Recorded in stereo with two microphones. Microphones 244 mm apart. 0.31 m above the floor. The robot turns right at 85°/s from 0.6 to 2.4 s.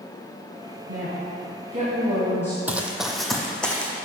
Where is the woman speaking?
115° right, 2.0 m; by 2.6 s 15° left, 2.0 m.